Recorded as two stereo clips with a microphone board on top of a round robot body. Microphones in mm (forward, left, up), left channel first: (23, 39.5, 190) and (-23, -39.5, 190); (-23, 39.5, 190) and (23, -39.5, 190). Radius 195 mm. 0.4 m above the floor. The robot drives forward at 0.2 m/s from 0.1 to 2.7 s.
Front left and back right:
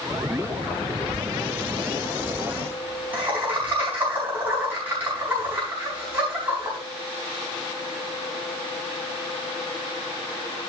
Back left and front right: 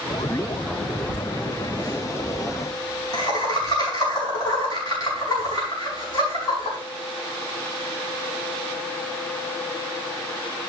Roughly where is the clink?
I don't hear a clink.